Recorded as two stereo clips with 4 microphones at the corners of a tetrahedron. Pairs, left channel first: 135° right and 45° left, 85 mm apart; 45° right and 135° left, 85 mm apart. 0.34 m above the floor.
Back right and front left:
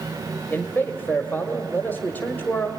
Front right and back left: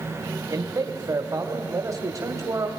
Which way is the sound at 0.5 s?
165° left.